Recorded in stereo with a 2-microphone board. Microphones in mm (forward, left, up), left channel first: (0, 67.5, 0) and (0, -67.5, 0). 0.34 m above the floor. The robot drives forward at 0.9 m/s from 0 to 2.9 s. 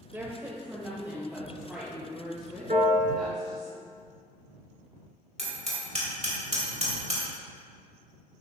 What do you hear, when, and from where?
0.1 s a woman speaking: 20° right (ahead or behind), 0.9 m; by 3.7 s 5° right (ahead or behind), 3 m
2.7 s a piano: 80° right, 1.7 m
5.4 s hammering: 55° right (ahead or behind), 3 m